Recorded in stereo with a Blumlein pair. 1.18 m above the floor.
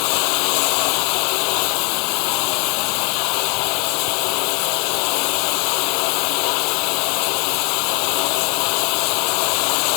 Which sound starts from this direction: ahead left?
Running water, at 0.0 s.